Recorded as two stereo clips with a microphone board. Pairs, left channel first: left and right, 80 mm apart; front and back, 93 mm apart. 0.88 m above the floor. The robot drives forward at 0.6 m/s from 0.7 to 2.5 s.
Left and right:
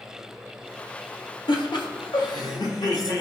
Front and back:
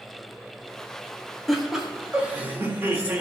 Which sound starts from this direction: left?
Laughter, at 1.5 s.